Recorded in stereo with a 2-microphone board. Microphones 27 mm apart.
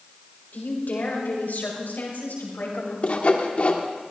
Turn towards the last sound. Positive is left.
turn(degrees=55)  # may be behind; listen again after turning